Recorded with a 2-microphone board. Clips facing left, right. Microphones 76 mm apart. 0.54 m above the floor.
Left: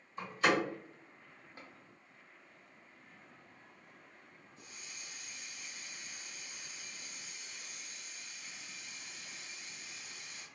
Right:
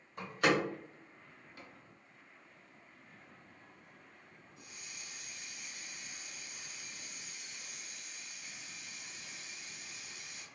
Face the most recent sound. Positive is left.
turn(degrees=-15)  # may be behind; listen again after turning